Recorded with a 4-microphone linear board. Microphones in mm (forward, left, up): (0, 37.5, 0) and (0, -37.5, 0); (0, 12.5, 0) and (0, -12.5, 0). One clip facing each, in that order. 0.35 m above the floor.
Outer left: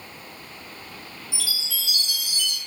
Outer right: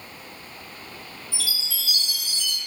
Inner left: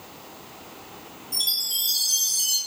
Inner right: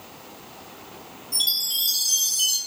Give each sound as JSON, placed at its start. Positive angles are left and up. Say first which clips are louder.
{"t": 1.3, "sound": "a chime", "louder": "even, inner right 2 dB", "side_deg": -40, "distance_m": 1.4}